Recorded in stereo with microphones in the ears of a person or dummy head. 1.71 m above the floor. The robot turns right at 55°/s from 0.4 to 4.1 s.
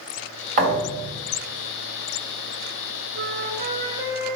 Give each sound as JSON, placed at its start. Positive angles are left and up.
{"t": 0.6, "sound": "a thud", "azimuth_deg": -60, "distance_m": 3.0}
{"t": 3.1, "sound": "a flute", "azimuth_deg": -75, "distance_m": 0.9}